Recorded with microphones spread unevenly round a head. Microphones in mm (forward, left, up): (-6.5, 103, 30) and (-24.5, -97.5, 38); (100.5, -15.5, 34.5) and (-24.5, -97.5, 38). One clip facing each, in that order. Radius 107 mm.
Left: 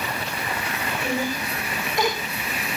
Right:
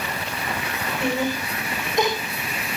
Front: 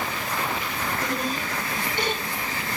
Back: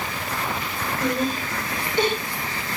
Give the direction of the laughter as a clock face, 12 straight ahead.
5 o'clock.